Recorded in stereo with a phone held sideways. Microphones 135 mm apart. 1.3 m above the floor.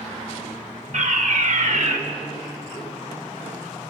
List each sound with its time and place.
0.9 s a fire alarm: 65° right (ahead or behind), 2.5 m